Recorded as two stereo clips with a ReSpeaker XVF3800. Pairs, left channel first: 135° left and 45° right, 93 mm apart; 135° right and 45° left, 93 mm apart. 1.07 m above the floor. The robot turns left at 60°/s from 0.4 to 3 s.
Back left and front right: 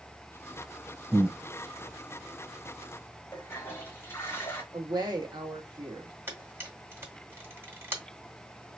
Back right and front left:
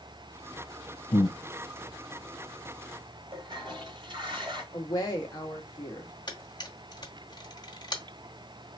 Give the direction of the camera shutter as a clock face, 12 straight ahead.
4 o'clock.